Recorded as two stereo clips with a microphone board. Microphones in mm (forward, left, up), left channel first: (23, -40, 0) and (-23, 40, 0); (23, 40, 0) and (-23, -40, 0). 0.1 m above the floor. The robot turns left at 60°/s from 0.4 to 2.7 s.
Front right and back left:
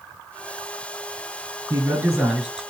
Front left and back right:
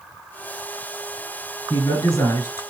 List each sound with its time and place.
1.7 s a man speaking: 85° left, 1.7 m; by 2.6 s 30° left, 1.7 m